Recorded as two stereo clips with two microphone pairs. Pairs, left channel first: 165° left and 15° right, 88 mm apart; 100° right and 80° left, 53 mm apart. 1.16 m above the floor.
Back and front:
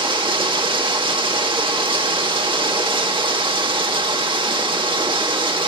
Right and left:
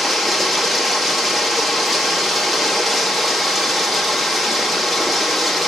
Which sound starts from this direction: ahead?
Running water, at 0.0 s.